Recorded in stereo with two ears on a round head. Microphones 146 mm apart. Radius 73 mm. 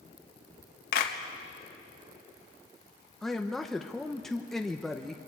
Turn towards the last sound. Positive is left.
turn(degrees=0)  # may be behind; listen again after turning